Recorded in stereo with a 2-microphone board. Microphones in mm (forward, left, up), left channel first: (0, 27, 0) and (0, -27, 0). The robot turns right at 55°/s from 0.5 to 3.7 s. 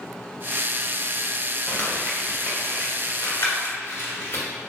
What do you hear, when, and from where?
1.7 s crumpling: 15° left (ahead or behind), 1.4 m; by 4.4 s 45° left (ahead or behind), 1.4 m